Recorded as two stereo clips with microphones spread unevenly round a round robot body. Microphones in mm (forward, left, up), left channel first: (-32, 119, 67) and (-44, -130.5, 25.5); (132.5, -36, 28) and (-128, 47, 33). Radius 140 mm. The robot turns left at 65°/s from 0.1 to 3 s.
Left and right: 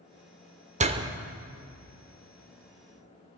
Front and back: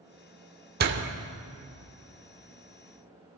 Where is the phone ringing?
I don't hear a phone ringing.